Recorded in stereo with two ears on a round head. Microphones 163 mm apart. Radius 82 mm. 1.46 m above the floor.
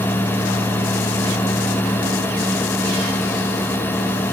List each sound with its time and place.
Only background noise.